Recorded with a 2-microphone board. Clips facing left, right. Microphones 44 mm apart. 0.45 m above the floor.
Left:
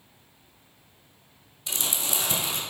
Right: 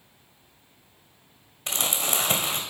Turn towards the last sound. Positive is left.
turn(degrees=-55)  # may be behind; listen again after turning